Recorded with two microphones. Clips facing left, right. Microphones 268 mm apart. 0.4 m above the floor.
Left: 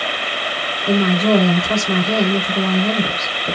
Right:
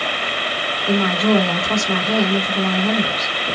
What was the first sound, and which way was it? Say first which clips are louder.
A woman speaking: left 2 dB; 30° left (ahead or behind).